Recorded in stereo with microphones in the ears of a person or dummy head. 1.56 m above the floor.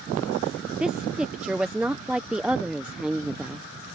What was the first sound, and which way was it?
A woman speaking, centre (ahead or behind).